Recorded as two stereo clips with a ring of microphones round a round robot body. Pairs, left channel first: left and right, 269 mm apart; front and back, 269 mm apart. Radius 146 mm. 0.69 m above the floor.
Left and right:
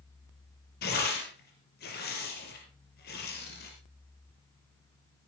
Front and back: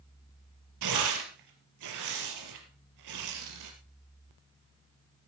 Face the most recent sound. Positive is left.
turn(degrees=150)